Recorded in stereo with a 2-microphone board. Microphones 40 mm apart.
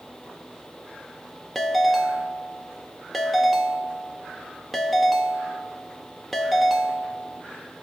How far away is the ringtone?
About 0.6 m.